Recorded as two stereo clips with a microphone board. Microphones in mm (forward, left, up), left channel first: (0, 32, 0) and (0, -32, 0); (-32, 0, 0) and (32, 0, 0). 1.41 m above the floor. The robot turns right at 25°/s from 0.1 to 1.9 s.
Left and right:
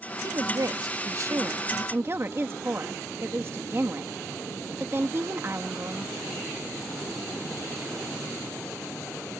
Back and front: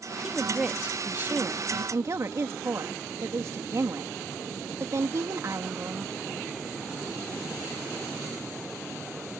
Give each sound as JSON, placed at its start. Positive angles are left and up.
{"t": 0.2, "sound": "a woman speaking", "azimuth_deg": -85}